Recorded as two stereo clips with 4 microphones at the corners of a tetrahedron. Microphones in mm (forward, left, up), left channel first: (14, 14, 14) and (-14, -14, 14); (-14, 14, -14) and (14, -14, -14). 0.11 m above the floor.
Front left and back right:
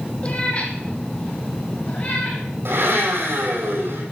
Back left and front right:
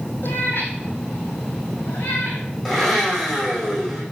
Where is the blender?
145° right, 6 m.